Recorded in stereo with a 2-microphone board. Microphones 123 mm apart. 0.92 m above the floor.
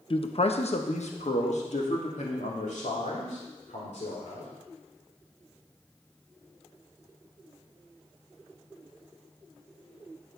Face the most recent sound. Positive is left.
turn(degrees=80)